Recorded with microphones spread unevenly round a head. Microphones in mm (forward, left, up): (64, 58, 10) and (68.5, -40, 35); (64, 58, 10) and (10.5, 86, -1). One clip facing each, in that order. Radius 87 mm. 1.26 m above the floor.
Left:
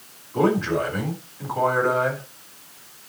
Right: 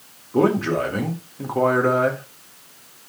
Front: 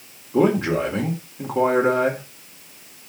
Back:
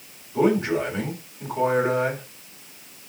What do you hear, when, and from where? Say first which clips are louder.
0.3 s a man speaking: right 2 dB, front 2 dB; 60° right, 4 m